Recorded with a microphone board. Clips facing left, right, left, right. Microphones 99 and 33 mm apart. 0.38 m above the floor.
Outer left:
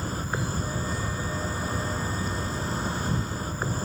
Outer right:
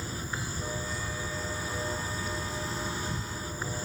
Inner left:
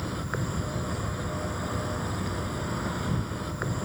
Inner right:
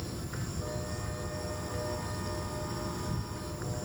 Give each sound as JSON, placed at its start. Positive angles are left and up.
{"t": 0.0, "sound": "an insect", "side_deg": 50}